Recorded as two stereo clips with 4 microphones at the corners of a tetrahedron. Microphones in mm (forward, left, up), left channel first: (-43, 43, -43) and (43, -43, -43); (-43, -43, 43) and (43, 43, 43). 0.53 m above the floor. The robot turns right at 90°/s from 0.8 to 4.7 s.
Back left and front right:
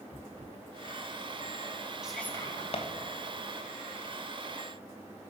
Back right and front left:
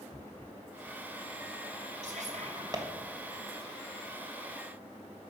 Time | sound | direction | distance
2.0 | whispering | 40° left | 2.5 m